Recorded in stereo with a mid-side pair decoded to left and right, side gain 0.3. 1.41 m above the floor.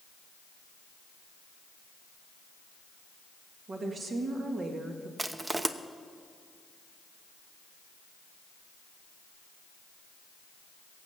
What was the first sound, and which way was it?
A woman speaking, 65° right.